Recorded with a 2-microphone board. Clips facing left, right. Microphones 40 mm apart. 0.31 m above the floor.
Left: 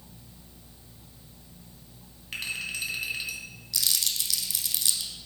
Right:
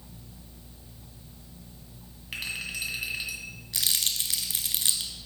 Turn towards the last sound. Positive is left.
turn(degrees=-40)  # may be behind; listen again after turning